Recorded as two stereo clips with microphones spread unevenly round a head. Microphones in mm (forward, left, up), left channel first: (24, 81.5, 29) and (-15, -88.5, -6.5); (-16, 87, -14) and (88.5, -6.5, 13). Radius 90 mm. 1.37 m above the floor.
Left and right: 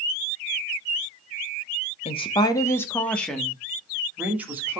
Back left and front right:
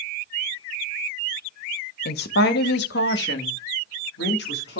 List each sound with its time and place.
2.0 s a woman speaking: 135° left, 0.9 m; by 4.8 s 175° left, 1.9 m